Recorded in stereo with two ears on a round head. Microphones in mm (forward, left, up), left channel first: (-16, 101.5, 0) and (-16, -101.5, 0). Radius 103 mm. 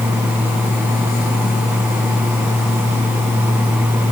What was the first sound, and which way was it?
Only background noise.